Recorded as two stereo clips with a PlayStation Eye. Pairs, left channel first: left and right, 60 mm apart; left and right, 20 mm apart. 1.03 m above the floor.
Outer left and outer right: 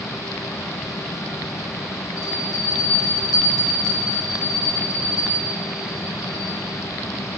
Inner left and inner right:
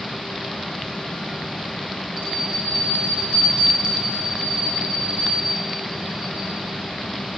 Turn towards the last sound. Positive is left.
turn(degrees=-70)  # may be behind; listen again after turning